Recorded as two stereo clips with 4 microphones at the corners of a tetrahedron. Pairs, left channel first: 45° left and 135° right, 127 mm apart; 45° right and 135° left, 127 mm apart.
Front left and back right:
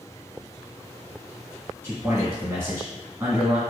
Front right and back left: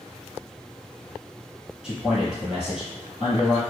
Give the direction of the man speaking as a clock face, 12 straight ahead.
5 o'clock.